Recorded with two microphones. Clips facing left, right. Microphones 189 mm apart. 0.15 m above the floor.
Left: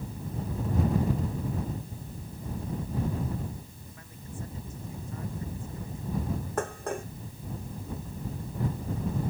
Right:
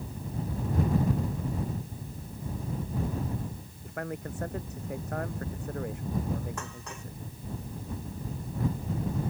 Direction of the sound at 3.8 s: 70° right (ahead or behind).